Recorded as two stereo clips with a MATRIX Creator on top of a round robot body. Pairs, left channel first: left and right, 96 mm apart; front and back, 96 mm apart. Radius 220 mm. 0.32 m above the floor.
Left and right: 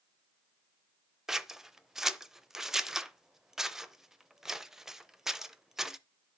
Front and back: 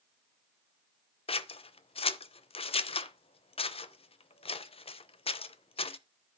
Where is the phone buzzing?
No phone buzzing in this recording.